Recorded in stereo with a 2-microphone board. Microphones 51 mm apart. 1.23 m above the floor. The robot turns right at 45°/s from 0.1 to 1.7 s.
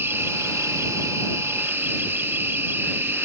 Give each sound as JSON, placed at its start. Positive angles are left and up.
{"t": 0.0, "sound": "an insect", "azimuth_deg": -125}